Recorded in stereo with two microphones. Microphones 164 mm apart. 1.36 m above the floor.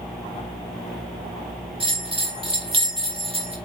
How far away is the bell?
About 1.3 m.